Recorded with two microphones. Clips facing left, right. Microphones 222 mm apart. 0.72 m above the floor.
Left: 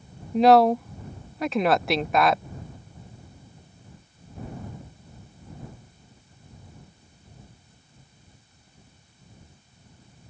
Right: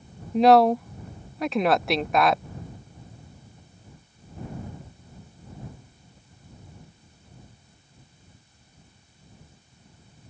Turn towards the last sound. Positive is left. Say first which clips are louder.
# even
turn(degrees=0)  # may be behind; listen again after turning